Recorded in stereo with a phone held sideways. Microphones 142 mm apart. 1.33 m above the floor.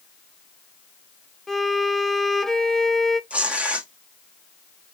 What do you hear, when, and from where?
1.5 s a violin: 5° left (ahead or behind), 0.6 m
3.3 s tearing paper: 10° right (ahead or behind), 1.0 m